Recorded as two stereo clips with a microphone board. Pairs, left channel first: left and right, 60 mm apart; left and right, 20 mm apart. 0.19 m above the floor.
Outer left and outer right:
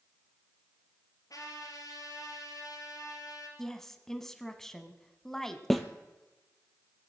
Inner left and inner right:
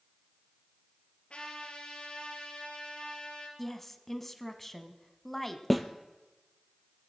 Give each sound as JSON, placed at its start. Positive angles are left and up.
{"t": 1.3, "sound": "a trumpet", "side_deg": 75, "distance_m": 3.0}
{"t": 3.6, "sound": "a woman speaking", "side_deg": 5, "distance_m": 1.2}
{"t": 5.7, "sound": "a snare drum", "side_deg": 0, "distance_m": 1.1}